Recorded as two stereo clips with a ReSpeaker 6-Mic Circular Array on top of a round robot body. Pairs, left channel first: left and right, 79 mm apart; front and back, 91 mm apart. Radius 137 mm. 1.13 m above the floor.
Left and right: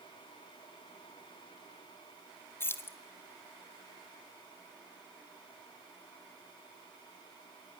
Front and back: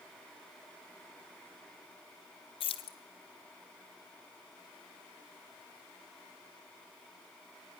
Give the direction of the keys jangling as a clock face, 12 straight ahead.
11 o'clock.